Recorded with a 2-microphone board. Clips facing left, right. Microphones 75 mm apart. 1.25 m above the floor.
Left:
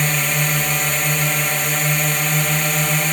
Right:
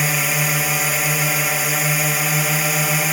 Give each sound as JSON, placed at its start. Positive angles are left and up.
{"t": 0.0, "sound": "a drone", "side_deg": -5}